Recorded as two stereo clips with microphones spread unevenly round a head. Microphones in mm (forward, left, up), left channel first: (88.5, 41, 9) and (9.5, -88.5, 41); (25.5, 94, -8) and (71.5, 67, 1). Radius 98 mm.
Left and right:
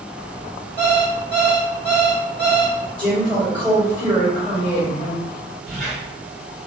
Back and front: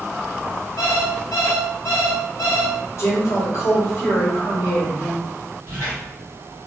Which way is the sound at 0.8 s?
155° left.